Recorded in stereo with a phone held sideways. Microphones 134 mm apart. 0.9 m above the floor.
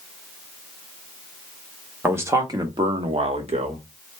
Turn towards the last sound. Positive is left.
turn(degrees=-50)  # may be behind; listen again after turning